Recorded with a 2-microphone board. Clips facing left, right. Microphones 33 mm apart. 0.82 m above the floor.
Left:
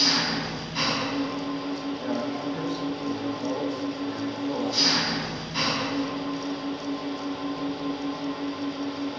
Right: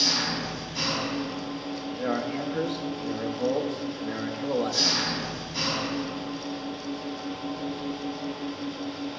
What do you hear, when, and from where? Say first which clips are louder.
0.0 s an engine running: left 2 dB; 20° left (ahead or behind), 3 m
1.9 s a man speaking: right 4 dB; 50° right (ahead or behind), 1.6 m